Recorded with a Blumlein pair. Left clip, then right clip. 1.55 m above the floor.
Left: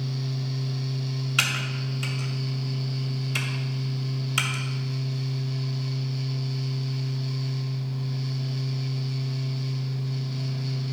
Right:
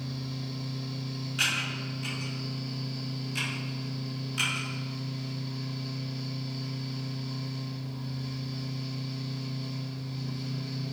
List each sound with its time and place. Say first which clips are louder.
0.0 s a fan: left 4 dB; 55° left, 1.5 m
1.4 s typing on a keyboard: left 3 dB; 45° left, 2.5 m